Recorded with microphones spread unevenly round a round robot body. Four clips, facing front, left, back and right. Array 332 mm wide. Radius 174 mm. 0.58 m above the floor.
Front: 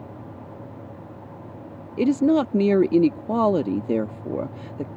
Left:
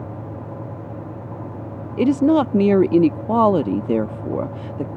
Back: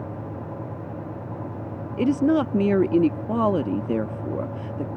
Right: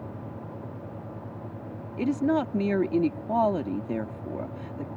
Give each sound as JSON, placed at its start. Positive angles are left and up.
{"t": 2.0, "sound": "a woman speaking", "azimuth_deg": 70}